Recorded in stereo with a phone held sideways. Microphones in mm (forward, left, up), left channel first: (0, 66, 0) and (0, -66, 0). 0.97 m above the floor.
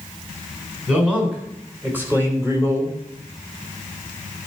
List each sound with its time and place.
0.9 s a man speaking: 10° right (ahead or behind), 4 m; by 3.0 s 25° right (ahead or behind), 3 m